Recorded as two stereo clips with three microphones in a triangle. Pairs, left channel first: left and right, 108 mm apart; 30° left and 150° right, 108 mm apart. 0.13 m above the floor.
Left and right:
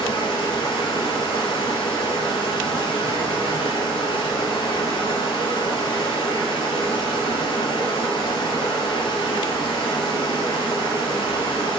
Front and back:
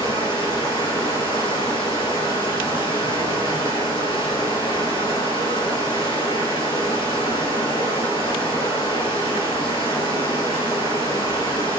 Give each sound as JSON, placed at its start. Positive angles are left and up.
{"t": 0.0, "sound": "running water", "azimuth_deg": 60, "distance_m": 2.5}